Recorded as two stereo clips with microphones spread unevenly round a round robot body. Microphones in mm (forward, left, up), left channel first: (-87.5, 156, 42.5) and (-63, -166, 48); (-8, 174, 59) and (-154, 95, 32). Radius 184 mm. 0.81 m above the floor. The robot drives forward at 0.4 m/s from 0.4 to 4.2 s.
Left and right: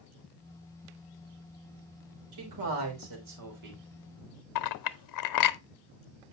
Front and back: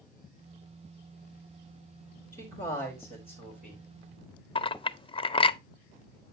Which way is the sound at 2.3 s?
100° right.